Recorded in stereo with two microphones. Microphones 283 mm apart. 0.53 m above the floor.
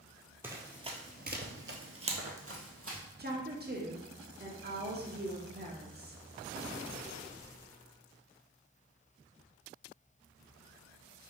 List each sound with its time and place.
0.4 s running footsteps: 10° right (ahead or behind), 0.8 m; by 3.0 s 50° right (ahead or behind), 1.2 m
3.2 s a woman speaking: 35° right (ahead or behind), 0.8 m